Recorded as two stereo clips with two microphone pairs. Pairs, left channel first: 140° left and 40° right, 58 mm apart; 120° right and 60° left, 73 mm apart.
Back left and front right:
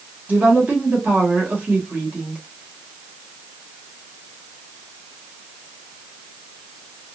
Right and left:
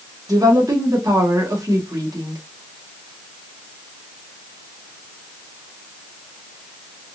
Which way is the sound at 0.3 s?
20° left.